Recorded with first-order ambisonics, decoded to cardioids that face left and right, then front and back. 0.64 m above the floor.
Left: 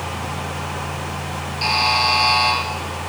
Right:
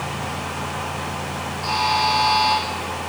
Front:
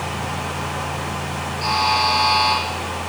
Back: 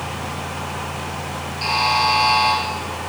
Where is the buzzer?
105° left, 5.5 m.